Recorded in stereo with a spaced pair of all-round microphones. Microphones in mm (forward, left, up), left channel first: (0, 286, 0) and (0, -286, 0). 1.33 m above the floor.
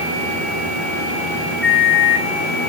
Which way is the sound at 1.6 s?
Centre (ahead or behind).